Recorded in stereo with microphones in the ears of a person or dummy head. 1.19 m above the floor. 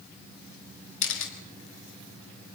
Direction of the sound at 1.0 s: 75° left (ahead or behind).